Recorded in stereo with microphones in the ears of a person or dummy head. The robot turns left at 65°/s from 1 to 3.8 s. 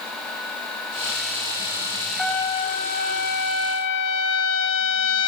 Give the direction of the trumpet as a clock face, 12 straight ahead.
6 o'clock.